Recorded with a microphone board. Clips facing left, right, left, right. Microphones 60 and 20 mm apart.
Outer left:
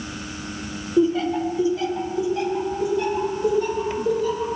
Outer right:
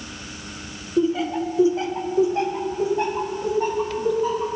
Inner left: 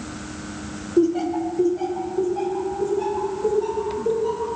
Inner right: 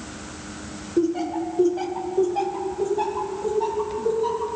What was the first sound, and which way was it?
Laughter, 5° left (ahead or behind).